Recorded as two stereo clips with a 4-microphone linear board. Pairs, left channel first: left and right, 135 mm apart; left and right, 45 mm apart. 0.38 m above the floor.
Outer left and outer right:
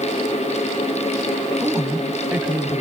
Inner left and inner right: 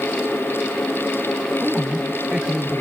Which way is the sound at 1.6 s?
10° right (ahead or behind).